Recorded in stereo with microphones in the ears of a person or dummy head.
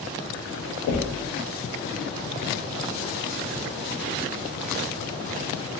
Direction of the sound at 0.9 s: 65° left (ahead or behind).